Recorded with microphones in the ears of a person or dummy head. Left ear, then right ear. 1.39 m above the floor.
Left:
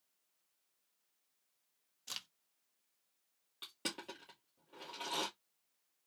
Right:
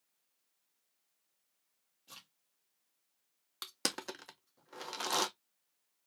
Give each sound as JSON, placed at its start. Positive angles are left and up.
{"t": 2.1, "sound": "a crack", "side_deg": 55, "distance_m": 1.1}
{"t": 3.6, "sound": "crushing", "side_deg": -55, "distance_m": 0.9}